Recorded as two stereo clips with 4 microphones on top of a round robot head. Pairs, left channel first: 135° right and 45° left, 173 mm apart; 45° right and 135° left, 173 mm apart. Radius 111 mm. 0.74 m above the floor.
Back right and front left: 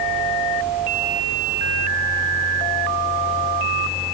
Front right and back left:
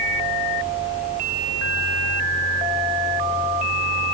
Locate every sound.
Only background noise.